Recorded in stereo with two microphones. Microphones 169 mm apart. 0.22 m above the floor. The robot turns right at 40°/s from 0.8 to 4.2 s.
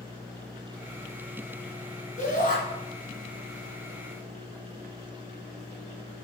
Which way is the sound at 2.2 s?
45° left (ahead or behind).